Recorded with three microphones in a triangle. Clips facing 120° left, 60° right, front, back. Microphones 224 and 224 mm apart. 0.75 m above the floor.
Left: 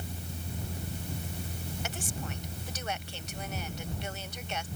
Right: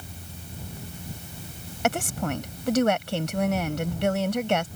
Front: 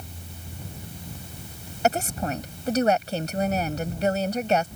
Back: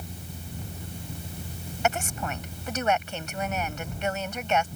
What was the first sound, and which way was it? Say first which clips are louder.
A woman speaking: right 17 dB, front 4 dB; 50° right.